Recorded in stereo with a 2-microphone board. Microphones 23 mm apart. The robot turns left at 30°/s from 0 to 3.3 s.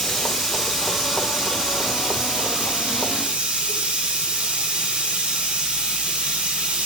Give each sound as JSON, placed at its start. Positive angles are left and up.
{"t": 0.0, "sound": "running water", "azimuth_deg": 15, "distance_m": 6.0}